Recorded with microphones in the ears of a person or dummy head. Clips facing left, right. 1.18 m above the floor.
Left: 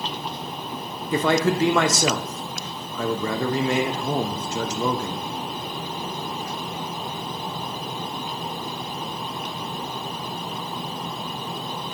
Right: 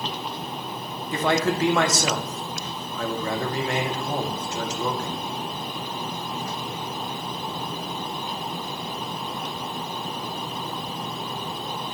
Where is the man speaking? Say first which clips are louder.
Left 3 dB; 75° left (ahead or behind), 0.8 m.